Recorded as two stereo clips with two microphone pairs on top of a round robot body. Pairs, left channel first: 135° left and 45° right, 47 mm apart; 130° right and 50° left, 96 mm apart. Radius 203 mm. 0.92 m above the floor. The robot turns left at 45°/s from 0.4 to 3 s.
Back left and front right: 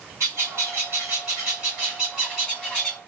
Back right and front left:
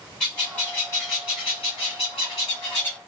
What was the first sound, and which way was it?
A bird, 50° right.